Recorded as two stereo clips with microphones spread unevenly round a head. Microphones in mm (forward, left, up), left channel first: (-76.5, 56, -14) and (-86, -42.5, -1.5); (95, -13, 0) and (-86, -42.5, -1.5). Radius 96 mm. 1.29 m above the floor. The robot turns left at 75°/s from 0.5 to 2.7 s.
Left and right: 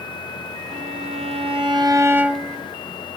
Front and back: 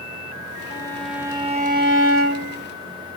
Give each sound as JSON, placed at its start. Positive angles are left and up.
{"t": 0.7, "sound": "a violin", "azimuth_deg": -55, "distance_m": 2.5}